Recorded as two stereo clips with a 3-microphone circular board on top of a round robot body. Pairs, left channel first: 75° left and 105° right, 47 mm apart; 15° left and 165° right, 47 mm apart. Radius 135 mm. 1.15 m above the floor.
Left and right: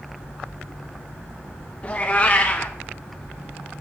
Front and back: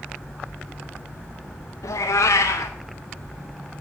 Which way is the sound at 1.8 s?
10° left.